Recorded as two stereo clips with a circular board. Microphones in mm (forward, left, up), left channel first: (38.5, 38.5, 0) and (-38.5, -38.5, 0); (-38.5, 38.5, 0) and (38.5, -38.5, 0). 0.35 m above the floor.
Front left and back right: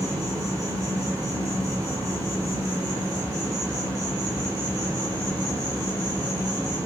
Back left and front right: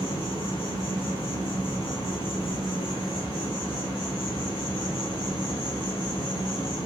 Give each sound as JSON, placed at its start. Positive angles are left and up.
{"t": 0.0, "sound": "an insect", "azimuth_deg": 170, "distance_m": 0.7}